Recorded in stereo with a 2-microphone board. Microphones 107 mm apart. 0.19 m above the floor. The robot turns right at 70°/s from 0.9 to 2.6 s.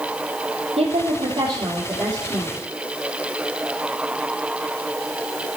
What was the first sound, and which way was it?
A woman speaking, 100° right.